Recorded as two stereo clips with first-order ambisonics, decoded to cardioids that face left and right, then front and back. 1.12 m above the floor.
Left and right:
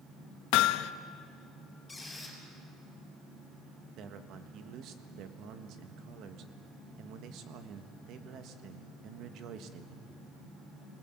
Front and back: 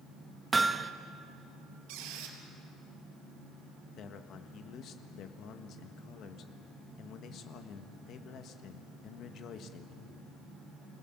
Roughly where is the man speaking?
Ahead right.